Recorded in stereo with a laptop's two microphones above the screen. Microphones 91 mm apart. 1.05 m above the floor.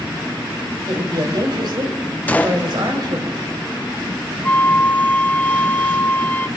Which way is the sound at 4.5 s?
15° left (ahead or behind).